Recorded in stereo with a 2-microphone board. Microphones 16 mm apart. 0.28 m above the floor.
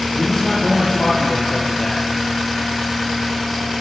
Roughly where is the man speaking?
Left.